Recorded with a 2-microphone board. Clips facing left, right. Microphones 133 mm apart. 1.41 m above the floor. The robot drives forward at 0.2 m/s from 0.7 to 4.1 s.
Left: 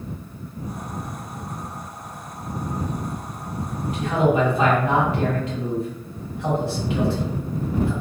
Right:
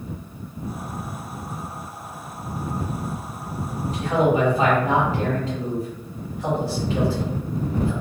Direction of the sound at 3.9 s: 35° right (ahead or behind).